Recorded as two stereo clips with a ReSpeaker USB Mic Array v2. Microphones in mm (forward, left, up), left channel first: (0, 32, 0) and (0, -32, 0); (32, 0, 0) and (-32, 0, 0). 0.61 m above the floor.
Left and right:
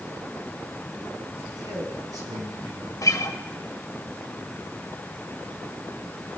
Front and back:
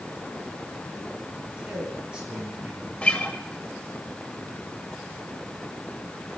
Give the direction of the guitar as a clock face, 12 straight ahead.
10 o'clock.